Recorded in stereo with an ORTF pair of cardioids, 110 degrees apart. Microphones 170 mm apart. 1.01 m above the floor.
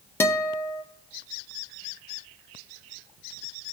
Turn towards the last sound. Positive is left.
turn(degrees=15)